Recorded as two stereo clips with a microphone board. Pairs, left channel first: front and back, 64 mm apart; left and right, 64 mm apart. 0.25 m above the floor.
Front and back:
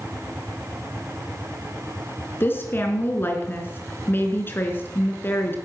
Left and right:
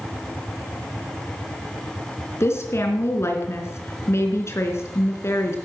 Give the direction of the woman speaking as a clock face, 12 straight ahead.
10 o'clock.